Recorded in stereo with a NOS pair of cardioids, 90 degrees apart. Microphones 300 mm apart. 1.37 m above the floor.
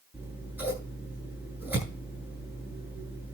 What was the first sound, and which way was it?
Scissors, 5° right.